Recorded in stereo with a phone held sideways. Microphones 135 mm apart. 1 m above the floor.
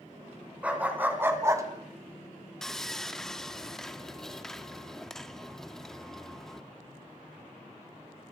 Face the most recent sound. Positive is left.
turn(degrees=0)  # may be behind; listen again after turning